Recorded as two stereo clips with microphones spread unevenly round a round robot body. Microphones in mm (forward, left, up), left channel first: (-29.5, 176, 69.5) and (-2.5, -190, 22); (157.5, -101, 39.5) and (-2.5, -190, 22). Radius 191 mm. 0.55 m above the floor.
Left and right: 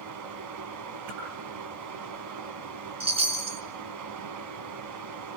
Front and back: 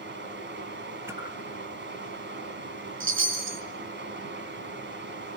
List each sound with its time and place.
0.0 s running water: 130° right, 2.5 m
1.1 s a whoosh: 80° right, 9.5 m
3.0 s a chime: 160° right, 4 m